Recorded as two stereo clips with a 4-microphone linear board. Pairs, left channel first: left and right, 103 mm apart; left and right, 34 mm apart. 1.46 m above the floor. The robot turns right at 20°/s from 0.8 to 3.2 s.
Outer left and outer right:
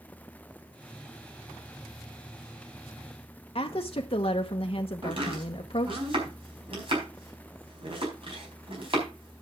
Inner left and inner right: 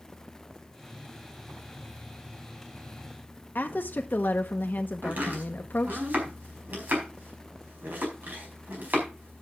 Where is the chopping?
65° right (ahead or behind), 4.5 m.